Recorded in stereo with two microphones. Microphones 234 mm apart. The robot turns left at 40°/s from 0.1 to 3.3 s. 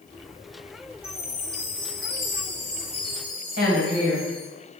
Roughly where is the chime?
Ahead.